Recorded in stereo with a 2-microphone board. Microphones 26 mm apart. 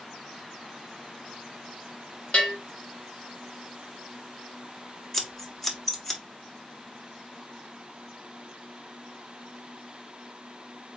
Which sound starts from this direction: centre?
Scissors, at 5.1 s.